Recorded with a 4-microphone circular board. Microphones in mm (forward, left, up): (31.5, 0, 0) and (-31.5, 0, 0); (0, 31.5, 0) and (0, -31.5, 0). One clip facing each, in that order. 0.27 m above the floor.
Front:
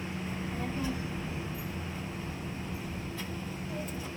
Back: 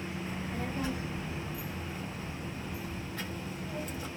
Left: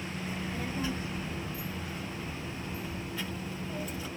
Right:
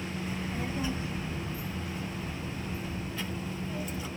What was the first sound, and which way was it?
A child speaking, 175° left.